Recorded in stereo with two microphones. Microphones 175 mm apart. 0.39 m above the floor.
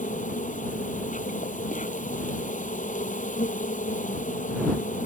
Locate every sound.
0.0 s an insect: 50° left (ahead or behind)